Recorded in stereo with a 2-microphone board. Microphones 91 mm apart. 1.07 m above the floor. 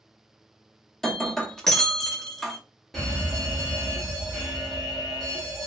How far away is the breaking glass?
About 0.6 m.